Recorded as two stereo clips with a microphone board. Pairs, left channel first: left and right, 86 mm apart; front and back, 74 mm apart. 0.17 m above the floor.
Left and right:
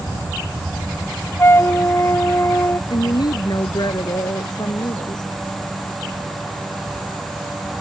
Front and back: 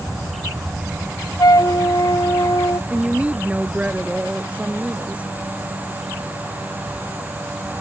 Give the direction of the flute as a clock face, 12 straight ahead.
11 o'clock.